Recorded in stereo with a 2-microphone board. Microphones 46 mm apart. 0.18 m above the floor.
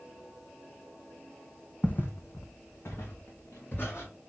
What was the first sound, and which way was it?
Footsteps, 30° left (ahead or behind).